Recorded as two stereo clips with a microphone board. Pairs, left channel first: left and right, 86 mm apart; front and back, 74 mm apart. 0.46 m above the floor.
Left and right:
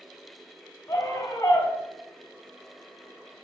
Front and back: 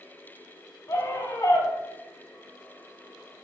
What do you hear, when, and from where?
0.9 s a scream: 45° left, 3.5 m